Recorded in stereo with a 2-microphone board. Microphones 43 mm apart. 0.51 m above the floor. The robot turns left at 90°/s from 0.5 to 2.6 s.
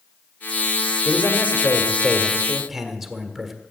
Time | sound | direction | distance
1.1 | a man speaking | 130° left | 1.7 m